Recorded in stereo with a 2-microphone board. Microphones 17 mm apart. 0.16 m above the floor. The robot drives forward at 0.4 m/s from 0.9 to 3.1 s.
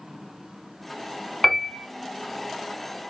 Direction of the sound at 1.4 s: 25° left (ahead or behind).